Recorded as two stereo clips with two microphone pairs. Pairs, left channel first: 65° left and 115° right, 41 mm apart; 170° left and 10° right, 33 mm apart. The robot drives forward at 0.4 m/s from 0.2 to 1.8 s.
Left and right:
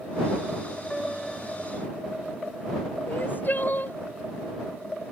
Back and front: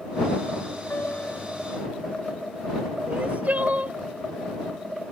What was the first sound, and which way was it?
A piano, 150° left.